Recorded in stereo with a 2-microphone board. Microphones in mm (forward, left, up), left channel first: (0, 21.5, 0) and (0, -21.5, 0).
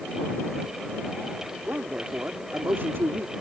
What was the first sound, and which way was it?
A man speaking, 35° right (ahead or behind).